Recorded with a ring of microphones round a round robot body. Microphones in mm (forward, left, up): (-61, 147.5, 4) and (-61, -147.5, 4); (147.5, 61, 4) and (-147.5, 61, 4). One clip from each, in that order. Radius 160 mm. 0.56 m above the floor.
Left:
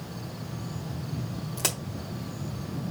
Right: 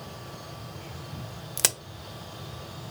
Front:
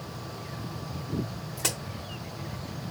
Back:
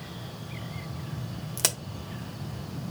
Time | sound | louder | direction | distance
1.6 | a crack | right 3 dB, back 2 dB | 130° right | 0.5 m